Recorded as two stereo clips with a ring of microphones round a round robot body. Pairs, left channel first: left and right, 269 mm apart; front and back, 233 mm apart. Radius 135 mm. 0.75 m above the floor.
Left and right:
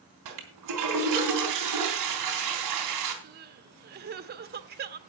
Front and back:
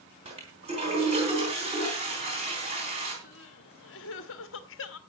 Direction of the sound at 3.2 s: 35° right.